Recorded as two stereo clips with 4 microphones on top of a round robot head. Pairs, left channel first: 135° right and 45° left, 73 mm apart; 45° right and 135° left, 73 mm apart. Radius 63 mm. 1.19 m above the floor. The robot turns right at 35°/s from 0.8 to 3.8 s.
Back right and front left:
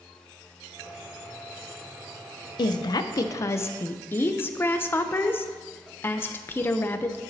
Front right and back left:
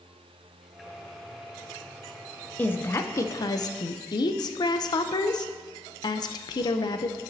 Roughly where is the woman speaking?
Behind right.